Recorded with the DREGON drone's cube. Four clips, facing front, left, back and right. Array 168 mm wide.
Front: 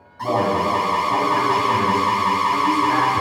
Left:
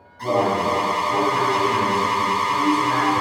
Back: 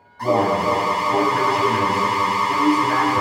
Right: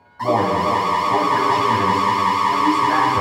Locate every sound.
0.2 s an alarm: 85° right, 2 m